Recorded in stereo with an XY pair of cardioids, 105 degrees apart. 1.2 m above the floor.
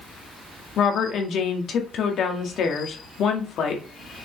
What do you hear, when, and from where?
0.8 s a woman speaking: 60° left, 2 m